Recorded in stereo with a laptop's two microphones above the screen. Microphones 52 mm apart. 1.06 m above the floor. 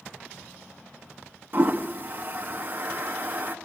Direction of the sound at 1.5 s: 35° right (ahead or behind).